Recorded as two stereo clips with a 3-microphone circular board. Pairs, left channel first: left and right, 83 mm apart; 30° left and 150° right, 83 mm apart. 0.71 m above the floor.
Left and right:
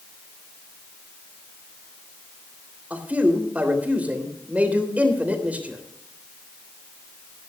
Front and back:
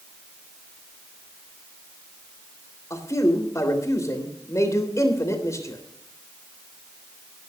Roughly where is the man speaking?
Ahead.